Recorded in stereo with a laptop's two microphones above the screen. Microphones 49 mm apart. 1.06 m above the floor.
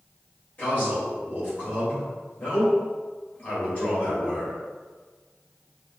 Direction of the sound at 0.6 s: 35° left (ahead or behind).